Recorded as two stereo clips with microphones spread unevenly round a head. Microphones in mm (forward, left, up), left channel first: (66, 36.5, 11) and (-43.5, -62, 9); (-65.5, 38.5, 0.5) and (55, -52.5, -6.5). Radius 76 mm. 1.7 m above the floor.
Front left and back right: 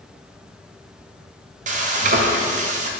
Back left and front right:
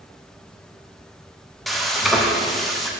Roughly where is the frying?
Behind right.